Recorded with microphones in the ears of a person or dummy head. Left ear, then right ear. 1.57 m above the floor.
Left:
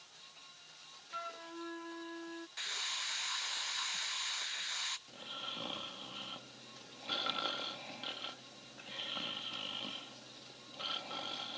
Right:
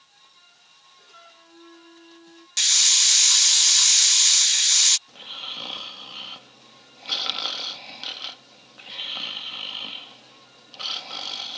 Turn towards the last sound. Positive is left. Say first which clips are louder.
# right 9 dB
turn(degrees=-40)  # may be behind; listen again after turning